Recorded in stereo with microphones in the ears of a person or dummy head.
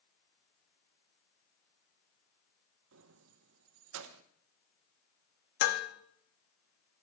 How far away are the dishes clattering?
About 1.1 m.